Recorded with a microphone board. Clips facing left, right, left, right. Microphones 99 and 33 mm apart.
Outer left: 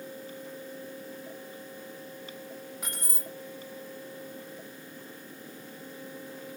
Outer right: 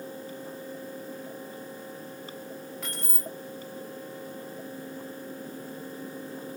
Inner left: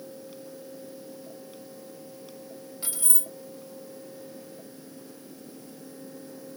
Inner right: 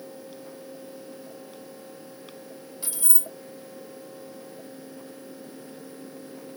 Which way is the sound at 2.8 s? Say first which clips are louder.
Outer right 3 dB, inner right 1 dB; 15° left (ahead or behind).